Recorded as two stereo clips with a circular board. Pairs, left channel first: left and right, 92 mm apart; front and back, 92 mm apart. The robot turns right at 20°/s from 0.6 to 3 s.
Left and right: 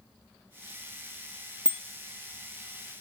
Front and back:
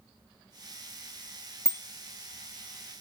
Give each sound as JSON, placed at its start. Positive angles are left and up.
{"t": 1.6, "sound": "a bicycle bell", "azimuth_deg": 60}